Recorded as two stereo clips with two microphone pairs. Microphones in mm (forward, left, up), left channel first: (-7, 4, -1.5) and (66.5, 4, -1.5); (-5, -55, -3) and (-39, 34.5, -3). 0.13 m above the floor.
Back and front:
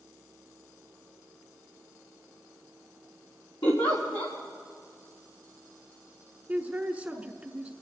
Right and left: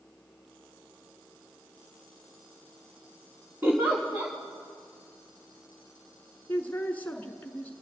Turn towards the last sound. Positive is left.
turn(degrees=-35)